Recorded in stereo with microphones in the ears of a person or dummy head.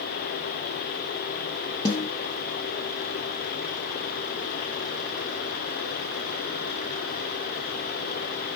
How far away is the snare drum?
About 0.6 m.